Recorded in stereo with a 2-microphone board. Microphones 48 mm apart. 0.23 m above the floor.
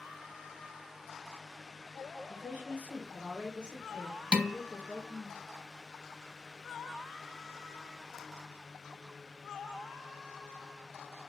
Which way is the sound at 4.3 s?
20° right (ahead or behind).